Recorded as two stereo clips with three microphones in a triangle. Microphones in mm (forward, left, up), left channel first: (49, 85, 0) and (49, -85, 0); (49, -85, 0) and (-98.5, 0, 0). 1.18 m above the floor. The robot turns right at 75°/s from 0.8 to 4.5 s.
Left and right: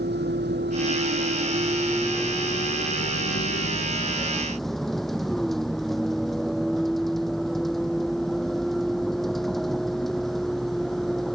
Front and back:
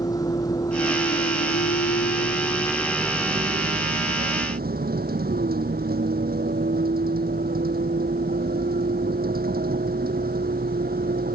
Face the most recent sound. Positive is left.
turn(degrees=180)